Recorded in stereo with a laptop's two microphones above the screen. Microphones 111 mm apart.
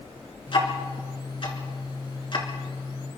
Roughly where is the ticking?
Left.